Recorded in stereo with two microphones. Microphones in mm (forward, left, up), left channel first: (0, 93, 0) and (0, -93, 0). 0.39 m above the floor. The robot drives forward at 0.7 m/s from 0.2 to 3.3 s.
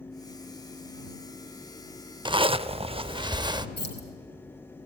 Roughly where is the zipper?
Right.